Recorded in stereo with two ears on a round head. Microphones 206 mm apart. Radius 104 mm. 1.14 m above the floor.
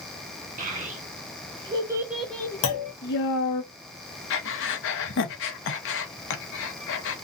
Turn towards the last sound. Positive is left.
turn(degrees=55)  # may be behind; listen again after turning